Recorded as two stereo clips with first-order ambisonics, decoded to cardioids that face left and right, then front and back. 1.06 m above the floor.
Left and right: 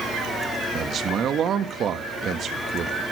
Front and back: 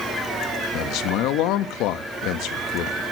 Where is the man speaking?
30° right, 1.4 m.